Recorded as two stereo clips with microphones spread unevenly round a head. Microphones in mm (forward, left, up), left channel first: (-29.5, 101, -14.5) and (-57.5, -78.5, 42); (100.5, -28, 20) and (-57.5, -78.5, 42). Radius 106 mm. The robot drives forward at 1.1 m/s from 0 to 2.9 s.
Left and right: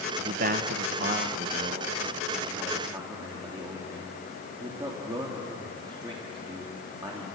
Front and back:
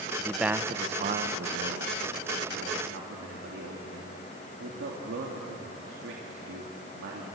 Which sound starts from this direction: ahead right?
A man speaking, at 0.2 s.